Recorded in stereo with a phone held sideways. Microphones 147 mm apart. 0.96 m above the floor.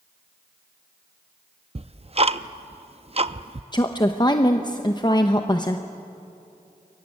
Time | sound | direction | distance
1.8 | ticking | 40° right (ahead or behind) | 0.6 m
3.7 | a woman speaking | 30° left (ahead or behind) | 0.9 m